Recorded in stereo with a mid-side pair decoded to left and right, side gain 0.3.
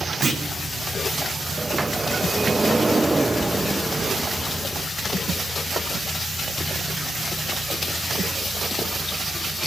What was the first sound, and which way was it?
A clunk, 60° right.